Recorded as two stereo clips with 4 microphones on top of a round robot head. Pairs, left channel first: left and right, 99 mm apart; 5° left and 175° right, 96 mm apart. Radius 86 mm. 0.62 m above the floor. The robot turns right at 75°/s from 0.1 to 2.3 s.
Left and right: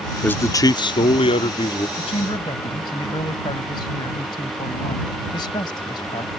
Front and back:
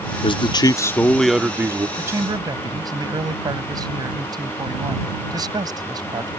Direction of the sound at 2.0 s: 115° left.